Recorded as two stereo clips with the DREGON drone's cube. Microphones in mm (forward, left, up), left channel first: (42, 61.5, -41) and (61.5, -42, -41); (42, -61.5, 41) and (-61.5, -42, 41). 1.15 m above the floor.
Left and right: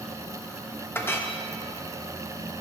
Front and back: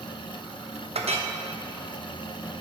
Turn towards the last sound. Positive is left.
turn(degrees=170)